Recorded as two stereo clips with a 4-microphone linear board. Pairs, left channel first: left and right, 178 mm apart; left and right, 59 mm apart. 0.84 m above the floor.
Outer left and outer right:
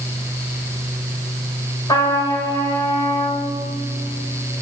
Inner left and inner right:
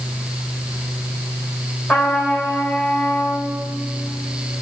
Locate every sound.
1.9 s a trumpet: 20° left (ahead or behind), 3.5 m